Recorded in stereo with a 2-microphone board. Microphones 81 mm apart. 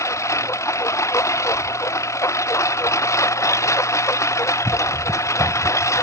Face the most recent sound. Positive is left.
turn(degrees=40)  # may be behind; listen again after turning